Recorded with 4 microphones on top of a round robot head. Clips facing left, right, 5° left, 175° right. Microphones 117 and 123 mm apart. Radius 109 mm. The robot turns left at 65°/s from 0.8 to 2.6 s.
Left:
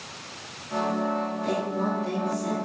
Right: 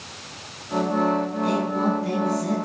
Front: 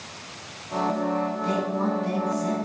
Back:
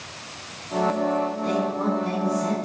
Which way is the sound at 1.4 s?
60° right.